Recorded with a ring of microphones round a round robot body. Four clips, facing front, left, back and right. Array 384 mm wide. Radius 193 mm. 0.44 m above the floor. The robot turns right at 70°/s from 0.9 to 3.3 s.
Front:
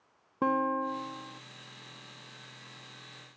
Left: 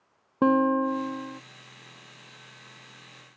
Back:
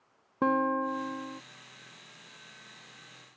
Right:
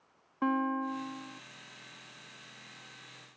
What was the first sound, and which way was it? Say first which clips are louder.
A guitar: left 9 dB, back 2 dB; 95° left.